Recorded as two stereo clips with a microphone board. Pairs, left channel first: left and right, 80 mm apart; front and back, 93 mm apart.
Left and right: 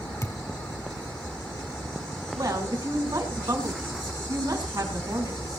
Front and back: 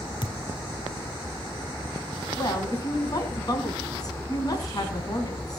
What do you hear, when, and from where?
0.2 s a thud: 40° left, 1.6 m
2.4 s a woman speaking: 45° right, 4 m